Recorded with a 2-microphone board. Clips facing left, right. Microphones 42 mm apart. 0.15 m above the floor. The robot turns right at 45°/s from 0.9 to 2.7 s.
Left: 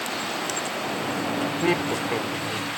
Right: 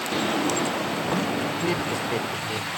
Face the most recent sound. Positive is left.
turn(degrees=-15)  # may be behind; listen again after turning